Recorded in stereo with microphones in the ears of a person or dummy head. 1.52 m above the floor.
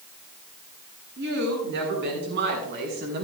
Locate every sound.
1.2 s a woman speaking: 65° right (ahead or behind), 5.5 m; by 3.2 s 60° right (ahead or behind), 3.5 m